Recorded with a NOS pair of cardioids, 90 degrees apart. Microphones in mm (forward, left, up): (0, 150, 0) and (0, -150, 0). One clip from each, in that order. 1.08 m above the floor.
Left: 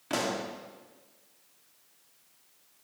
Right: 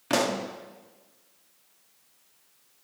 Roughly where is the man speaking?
No man speaking in this recording.